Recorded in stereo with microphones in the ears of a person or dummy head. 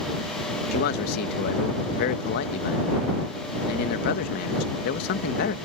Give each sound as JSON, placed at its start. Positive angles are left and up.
{"t": 0.7, "sound": "a man speaking", "side_deg": 60}